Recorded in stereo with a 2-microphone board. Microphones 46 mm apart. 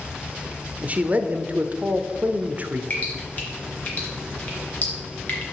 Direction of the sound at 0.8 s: 30° right (ahead or behind).